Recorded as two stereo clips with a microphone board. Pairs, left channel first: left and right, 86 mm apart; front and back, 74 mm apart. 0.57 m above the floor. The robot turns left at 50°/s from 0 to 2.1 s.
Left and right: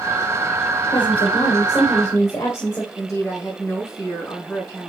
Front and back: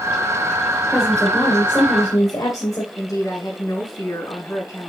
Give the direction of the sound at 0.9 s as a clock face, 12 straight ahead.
9 o'clock.